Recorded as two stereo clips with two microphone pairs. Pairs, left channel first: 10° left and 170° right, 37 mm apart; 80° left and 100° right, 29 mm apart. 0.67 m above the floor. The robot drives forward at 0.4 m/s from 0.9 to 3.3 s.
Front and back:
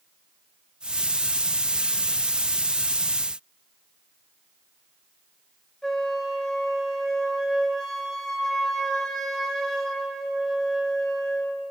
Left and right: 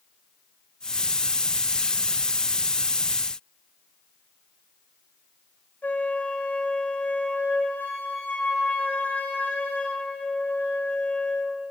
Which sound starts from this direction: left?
A flute, at 5.8 s.